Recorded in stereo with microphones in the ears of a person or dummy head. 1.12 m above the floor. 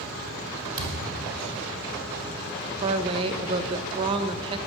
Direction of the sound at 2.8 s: 30° right (ahead or behind).